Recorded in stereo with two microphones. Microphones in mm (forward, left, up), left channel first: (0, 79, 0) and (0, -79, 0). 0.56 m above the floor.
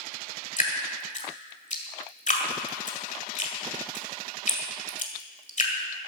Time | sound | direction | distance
0.6 | dripping | 50° left (ahead or behind) | 1.7 m